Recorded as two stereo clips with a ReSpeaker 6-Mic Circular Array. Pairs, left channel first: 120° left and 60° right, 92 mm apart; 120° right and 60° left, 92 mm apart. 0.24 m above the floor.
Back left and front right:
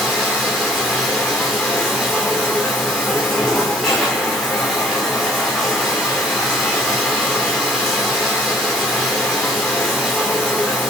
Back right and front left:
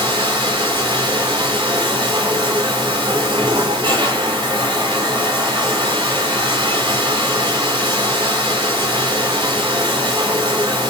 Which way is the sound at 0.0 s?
30° left.